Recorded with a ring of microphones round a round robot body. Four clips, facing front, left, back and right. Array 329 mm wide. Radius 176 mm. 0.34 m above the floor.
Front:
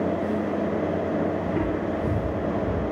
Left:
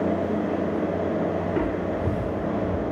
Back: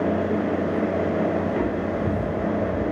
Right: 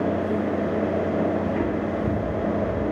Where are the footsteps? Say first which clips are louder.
Right 1 dB, back 2 dB; 140° left, 4 m; by 2.9 s 155° left, 3.5 m.